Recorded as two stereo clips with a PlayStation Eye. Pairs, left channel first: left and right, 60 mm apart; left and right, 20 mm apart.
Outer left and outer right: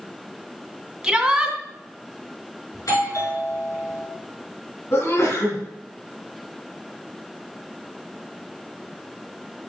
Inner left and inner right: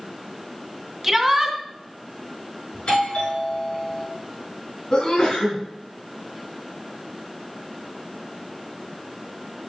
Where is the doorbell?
65° left (ahead or behind), 5 m.